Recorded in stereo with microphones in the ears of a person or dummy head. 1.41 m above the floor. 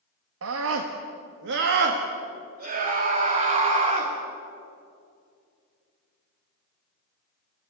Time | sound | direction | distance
0.4 | a scream | 75° right (ahead or behind) | 1.6 m